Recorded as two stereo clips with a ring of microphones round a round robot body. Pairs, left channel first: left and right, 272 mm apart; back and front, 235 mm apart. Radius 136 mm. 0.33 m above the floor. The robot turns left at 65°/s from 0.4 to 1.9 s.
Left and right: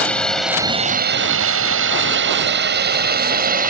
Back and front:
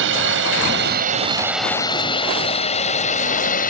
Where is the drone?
5° left; by 3.7 s 135° right.